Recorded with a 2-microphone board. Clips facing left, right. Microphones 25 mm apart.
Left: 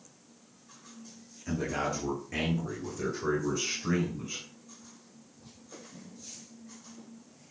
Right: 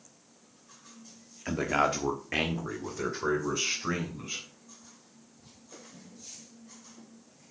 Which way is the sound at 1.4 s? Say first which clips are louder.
Right 5 dB; 60° right (ahead or behind).